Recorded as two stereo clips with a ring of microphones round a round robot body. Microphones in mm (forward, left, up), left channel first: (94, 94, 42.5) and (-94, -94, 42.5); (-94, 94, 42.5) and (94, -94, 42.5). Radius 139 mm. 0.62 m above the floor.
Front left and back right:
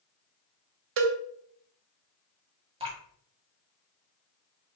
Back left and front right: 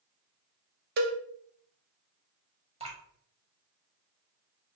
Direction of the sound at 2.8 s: 90° right.